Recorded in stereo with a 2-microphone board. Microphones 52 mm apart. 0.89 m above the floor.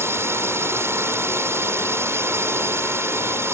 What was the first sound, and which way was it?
A drone, 55° right (ahead or behind).